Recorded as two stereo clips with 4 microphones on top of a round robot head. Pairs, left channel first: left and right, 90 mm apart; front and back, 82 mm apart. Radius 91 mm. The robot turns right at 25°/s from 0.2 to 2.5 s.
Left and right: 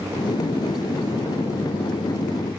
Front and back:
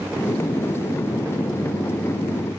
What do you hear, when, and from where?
Only background noise.